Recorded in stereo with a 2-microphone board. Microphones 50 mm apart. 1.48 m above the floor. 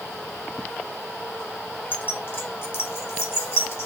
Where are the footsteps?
I don't hear footsteps.